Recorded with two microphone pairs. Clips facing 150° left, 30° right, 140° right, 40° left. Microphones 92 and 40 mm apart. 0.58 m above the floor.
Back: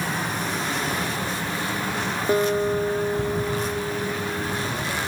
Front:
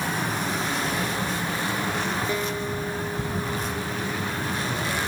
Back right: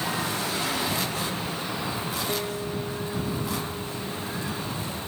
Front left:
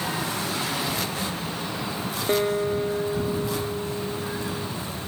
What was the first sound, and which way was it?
A guitar, 95° left.